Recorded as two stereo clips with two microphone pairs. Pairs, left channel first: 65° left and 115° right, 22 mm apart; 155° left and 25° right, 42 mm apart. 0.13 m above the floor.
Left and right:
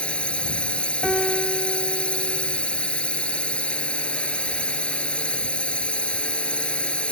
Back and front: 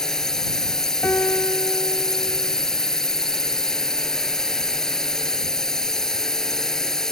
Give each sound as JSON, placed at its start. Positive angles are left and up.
{"t": 0.0, "sound": "a drone", "azimuth_deg": 80}
{"t": 1.0, "sound": "a piano", "azimuth_deg": 135}